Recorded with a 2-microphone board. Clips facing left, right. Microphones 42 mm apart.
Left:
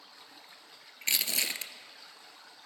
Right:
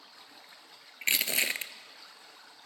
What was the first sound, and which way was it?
Crushing, 30° right (ahead or behind).